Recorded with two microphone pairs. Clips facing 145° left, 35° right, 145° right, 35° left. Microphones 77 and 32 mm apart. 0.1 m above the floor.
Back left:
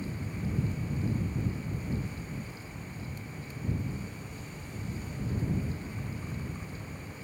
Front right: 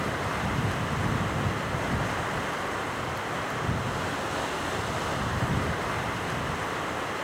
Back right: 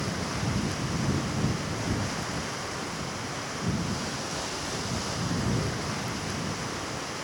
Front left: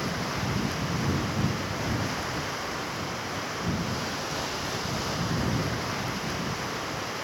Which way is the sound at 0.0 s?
50° right.